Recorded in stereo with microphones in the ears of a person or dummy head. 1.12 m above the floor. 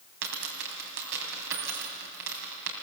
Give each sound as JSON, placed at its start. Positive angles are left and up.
{"t": 0.2, "sound": "a dropped coin", "side_deg": -75, "distance_m": 4.0}